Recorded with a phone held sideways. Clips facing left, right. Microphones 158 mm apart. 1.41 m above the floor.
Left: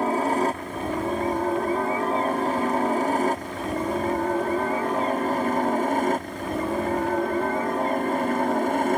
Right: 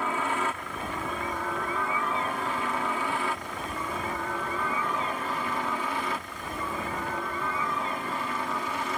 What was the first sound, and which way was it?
A helicopter, 40° left (ahead or behind).